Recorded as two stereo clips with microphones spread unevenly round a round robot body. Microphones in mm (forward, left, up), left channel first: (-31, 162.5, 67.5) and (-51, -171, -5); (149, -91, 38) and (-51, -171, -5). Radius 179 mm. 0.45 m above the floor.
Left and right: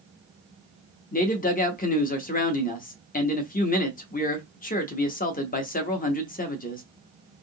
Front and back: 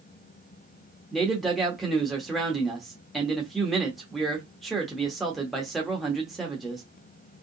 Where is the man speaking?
145° left, 0.8 m.